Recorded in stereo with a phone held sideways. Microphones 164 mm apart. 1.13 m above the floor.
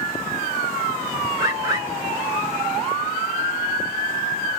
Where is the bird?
20° right (ahead or behind), 1.6 m.